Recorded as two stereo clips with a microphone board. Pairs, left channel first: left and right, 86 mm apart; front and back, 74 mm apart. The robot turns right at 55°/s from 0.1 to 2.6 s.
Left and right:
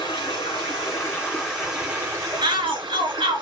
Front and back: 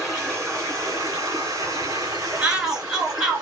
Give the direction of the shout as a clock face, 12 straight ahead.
4 o'clock.